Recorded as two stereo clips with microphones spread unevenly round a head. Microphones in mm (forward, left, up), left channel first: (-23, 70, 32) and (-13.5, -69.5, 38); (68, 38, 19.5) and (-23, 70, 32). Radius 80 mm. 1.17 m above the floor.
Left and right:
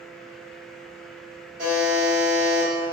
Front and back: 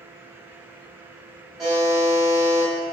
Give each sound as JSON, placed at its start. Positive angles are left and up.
{"t": 1.6, "sound": "a buzzer", "azimuth_deg": -115, "distance_m": 2.0}